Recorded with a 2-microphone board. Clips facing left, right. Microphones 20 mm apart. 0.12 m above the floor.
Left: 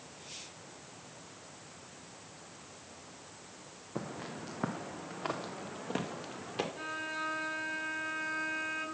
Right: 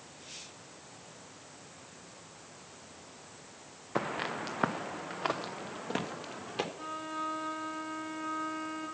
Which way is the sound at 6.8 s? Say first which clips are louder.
Even; 65° left (ahead or behind).